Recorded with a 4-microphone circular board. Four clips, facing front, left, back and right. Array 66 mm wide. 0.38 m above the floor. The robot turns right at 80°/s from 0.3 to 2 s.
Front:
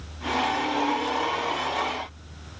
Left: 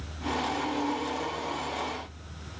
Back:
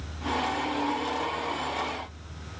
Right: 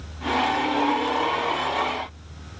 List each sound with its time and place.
Only background noise.